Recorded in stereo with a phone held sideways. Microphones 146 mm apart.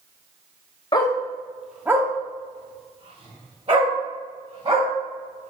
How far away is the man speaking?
No man speaking in this recording.